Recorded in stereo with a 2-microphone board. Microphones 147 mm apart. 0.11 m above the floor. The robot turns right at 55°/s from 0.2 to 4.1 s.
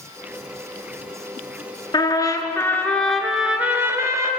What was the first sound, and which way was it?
A trumpet, 105° left.